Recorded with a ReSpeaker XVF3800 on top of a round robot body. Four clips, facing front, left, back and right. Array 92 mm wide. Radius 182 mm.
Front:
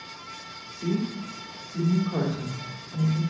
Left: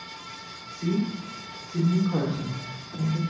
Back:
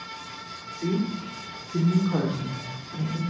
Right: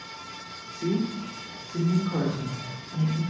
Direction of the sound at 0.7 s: 160° right.